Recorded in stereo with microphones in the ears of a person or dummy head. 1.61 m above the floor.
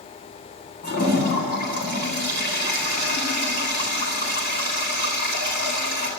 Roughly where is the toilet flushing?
Left.